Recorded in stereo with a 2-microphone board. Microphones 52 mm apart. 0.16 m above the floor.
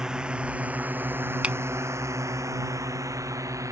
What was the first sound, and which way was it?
A drone, 15° right (ahead or behind).